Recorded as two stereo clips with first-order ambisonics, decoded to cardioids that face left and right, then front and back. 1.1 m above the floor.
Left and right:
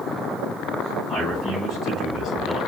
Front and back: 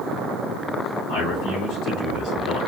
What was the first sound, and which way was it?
A man speaking, 5° left.